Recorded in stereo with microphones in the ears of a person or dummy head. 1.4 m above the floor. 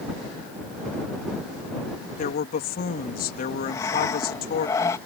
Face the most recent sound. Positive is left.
turn(degrees=20)  # may be behind; listen again after turning